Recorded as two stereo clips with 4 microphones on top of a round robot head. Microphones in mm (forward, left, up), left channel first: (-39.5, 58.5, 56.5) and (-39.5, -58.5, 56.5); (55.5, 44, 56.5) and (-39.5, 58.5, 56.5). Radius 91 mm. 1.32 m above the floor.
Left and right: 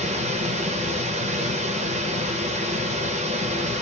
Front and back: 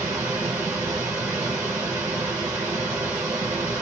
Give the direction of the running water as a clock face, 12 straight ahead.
4 o'clock.